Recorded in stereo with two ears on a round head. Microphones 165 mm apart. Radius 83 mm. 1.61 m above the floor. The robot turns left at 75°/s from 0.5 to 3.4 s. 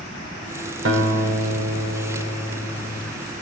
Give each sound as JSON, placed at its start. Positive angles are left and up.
{"t": 0.8, "sound": "a guitar", "azimuth_deg": -75, "distance_m": 5.5}